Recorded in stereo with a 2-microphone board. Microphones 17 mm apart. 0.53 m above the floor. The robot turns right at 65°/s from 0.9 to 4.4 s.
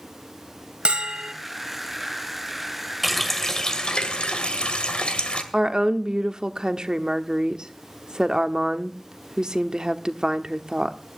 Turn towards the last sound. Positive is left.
turn(degrees=-40)  # may be behind; listen again after turning